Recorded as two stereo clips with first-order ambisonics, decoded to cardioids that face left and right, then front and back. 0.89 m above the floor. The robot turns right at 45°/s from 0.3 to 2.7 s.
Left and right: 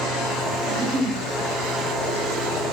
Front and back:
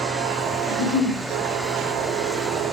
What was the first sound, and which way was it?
A giggle, 115° right.